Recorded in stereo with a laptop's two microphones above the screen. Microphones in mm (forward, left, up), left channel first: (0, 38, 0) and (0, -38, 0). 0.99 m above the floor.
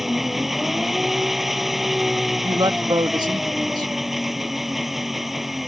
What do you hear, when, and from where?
0.0 s an engine running: 5° right (ahead or behind)
2.4 s a woman speaking: 70° right (ahead or behind)